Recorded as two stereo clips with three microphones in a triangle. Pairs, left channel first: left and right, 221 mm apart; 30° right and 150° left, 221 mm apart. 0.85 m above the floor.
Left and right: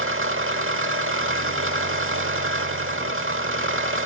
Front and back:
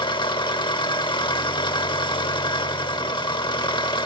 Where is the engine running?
100° right, 1.0 m.